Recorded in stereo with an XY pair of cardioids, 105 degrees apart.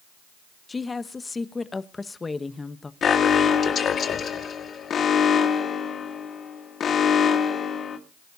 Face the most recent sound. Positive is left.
turn(degrees=50)